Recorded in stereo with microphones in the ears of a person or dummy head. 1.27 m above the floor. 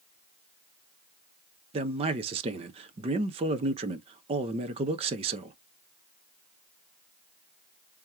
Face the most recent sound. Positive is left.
turn(degrees=-30)  # may be behind; listen again after turning